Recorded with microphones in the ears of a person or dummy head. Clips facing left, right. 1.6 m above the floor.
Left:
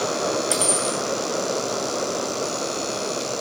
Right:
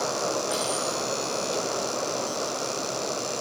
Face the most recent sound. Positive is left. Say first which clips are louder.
# left 4 dB
turn(degrees=30)  # may be behind; listen again after turning